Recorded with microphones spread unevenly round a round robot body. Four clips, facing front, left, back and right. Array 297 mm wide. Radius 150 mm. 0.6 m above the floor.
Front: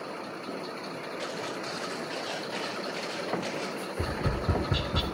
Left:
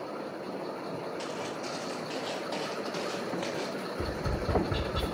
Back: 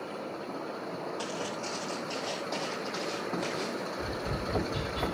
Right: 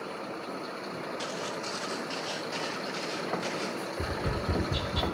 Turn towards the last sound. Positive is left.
turn(degrees=-10)